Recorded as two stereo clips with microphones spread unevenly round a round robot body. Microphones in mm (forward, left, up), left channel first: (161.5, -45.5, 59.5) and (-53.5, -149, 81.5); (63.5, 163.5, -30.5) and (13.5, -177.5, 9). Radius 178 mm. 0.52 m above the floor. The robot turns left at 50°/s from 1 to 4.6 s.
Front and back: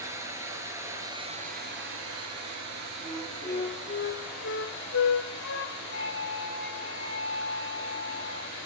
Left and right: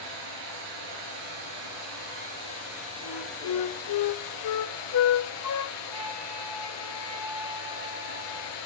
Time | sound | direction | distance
0.0 | running water | 75° right | 6 m
3.0 | a flute | 125° left | 1.0 m
5.9 | a flute | 115° right | 4.5 m